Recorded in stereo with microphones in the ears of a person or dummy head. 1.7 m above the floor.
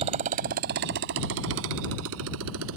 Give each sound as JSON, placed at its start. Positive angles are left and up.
{"t": 0.0, "sound": "a motorcycle", "side_deg": -30}